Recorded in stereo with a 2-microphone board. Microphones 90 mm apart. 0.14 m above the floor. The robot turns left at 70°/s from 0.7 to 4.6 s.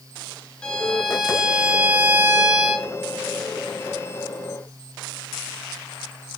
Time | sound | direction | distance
0.6 | a violin | 10° left (ahead or behind) | 0.6 m